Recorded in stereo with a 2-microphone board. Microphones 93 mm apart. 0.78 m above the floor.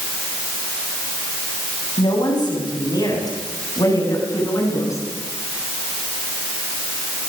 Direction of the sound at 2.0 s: 50° left (ahead or behind).